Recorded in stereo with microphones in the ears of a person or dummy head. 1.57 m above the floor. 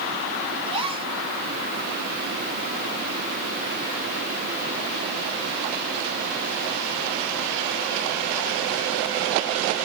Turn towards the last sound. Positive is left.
turn(degrees=-30)  # may be behind; listen again after turning